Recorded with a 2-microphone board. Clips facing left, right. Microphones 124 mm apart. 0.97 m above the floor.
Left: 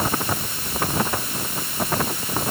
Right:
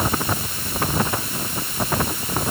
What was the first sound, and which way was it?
Only background noise.